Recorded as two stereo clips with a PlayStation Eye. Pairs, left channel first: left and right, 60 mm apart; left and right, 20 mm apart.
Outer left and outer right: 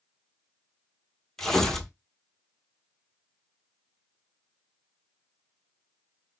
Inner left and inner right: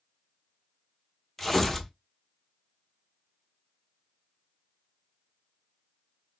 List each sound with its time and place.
1.4 s tearing paper: 10° left (ahead or behind), 1.1 m